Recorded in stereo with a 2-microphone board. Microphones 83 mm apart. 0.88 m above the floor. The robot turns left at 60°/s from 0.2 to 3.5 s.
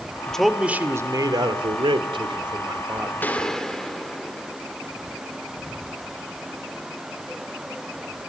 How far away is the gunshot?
About 1.9 m.